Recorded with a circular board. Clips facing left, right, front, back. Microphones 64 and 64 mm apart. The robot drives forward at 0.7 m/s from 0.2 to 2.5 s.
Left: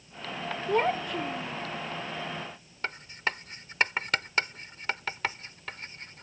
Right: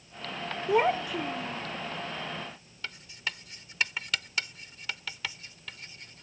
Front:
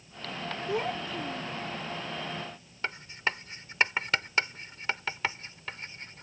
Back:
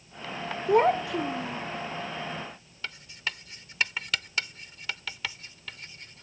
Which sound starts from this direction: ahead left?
Writing, at 2.8 s.